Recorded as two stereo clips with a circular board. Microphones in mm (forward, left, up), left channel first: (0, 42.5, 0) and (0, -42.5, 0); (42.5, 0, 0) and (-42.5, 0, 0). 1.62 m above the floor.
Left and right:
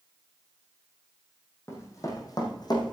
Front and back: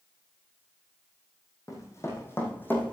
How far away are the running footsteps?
About 3 m.